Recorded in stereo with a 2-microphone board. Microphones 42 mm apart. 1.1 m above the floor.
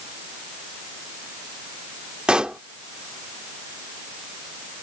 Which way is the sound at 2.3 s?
25° right (ahead or behind).